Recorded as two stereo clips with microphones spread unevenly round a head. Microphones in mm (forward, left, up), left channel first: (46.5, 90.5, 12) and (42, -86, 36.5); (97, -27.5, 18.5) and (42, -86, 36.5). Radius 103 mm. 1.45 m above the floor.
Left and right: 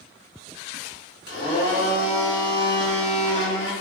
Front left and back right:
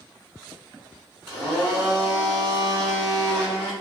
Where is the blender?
95° left, 1.7 m.